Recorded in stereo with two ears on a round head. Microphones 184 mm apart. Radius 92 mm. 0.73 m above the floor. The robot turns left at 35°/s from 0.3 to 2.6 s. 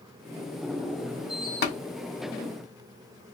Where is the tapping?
55° left (ahead or behind), 1.5 m; by 1.8 s 50° left (ahead or behind), 1.5 m.